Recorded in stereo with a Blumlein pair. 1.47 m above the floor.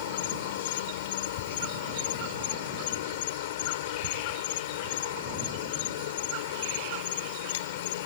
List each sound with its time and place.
0.0 s an insect: 55° left